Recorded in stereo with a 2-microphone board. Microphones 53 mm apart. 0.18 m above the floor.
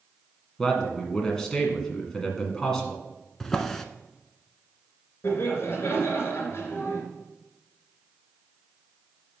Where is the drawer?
5° left (ahead or behind), 0.6 m.